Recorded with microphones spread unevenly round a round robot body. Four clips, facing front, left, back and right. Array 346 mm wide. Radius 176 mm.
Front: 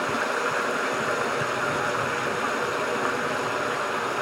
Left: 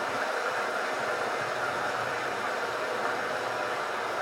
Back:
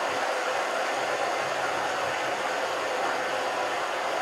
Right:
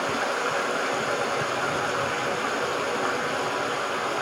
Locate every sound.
0.0 s running water: 40° right, 1.5 m